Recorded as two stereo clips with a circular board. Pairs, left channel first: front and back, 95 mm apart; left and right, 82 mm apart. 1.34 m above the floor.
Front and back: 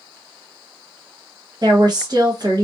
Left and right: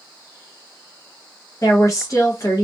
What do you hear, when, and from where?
1.6 s a woman speaking: 135° left, 1.0 m